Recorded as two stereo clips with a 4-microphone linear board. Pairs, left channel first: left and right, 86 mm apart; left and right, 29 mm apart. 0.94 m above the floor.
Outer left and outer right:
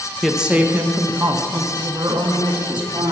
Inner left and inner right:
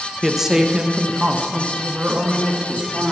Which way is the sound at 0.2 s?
Centre (ahead or behind).